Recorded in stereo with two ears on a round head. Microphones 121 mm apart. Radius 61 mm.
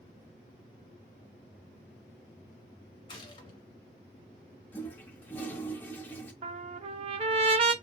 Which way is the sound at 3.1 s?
35° left (ahead or behind).